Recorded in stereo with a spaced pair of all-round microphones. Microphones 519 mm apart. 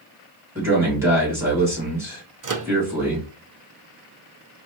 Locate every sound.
0.6 s a man speaking: 5° right (ahead or behind), 2.5 m
2.4 s a microwave: 40° right (ahead or behind), 0.5 m